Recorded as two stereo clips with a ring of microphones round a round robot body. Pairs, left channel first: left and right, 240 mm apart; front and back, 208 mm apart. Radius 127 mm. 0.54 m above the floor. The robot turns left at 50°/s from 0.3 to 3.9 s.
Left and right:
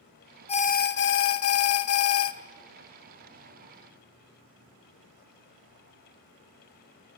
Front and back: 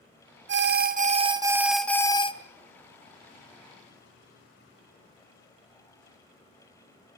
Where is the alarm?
155° left, 1.4 m; by 2.3 s 60° left, 1.4 m.